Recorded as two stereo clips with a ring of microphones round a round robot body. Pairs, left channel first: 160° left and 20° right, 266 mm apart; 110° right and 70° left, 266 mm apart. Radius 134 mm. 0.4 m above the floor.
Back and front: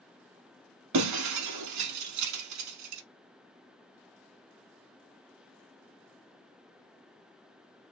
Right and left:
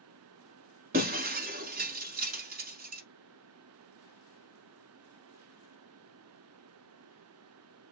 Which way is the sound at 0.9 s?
5° left.